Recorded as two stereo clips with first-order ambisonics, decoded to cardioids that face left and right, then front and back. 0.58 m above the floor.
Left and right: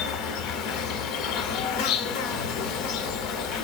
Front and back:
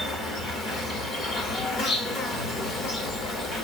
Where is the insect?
60° left, 0.9 m.